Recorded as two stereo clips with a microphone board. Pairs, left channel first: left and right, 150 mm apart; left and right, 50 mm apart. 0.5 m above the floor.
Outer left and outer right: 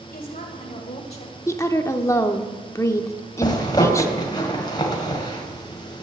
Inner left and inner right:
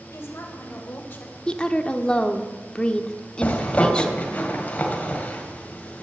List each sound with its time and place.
0.1 s a woman speaking: 70° left (ahead or behind), 2.5 m; by 1.4 s 30° left (ahead or behind), 1.1 m
1.5 s a woman speaking: 20° left (ahead or behind), 0.8 m
3.4 s a zipper: 30° left (ahead or behind), 2 m